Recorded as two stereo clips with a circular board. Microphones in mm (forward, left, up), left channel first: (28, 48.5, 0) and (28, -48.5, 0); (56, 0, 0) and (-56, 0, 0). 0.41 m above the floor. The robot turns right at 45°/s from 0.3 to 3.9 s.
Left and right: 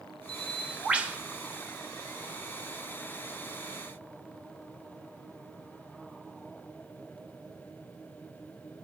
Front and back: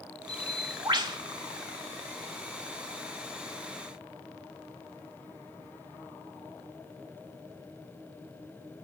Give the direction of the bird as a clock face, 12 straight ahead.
6 o'clock.